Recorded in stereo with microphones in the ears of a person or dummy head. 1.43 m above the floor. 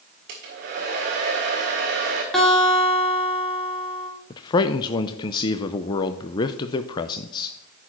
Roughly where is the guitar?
Centre.